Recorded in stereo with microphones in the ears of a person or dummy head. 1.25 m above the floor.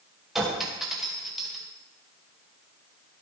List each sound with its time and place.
0.3 s a clink: 5° right (ahead or behind), 1.1 m